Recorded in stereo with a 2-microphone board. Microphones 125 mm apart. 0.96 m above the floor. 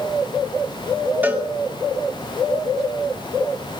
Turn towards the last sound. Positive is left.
turn(degrees=-15)  # may be behind; listen again after turning